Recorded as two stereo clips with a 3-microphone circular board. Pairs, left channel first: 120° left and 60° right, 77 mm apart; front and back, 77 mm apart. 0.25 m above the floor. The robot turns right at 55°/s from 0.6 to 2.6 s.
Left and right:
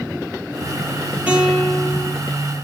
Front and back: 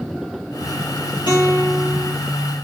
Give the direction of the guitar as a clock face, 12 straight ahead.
12 o'clock.